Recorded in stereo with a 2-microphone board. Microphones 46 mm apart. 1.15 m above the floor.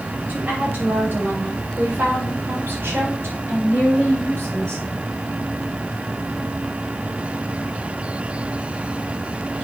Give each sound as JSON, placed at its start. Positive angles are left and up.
{"t": 0.3, "sound": "a woman speaking", "side_deg": -50, "distance_m": 6.0}